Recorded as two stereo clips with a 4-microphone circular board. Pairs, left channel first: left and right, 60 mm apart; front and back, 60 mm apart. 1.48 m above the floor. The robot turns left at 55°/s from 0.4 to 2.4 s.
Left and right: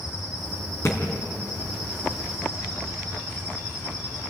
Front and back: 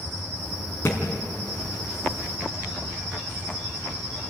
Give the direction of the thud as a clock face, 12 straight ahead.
10 o'clock.